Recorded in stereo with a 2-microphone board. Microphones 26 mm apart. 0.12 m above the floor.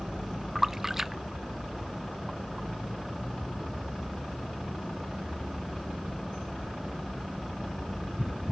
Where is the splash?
10° right (ahead or behind).